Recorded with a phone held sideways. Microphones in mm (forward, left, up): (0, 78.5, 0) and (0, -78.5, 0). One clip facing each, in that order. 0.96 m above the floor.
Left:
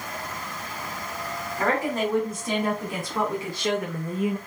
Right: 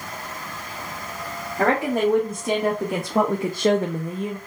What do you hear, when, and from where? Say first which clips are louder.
1.6 s a woman speaking: right 5 dB; 70° right (ahead or behind), 2 m; by 4.4 s 20° left (ahead or behind), 0.6 m